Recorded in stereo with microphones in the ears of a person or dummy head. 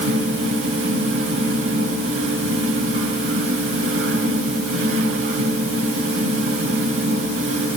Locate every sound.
0.0 s a fan: 80° right, 5 m